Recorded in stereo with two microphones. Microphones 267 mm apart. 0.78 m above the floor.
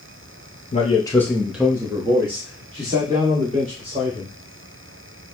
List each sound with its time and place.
0.7 s a man speaking: 25° left (ahead or behind), 0.8 m; by 4.3 s 25° right (ahead or behind), 3 m